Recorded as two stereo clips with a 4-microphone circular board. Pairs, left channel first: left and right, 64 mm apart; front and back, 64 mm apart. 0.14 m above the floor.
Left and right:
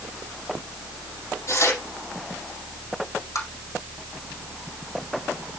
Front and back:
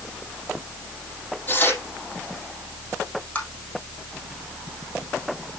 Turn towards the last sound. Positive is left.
turn(degrees=65)